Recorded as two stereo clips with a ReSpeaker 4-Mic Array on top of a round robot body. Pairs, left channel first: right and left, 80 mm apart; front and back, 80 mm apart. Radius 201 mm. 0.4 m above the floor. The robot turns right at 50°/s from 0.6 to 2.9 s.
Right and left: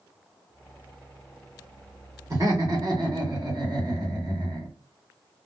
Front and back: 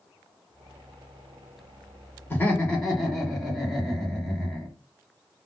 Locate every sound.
2.3 s laughter: 55° left, 2 m; by 4.7 s 85° left, 2 m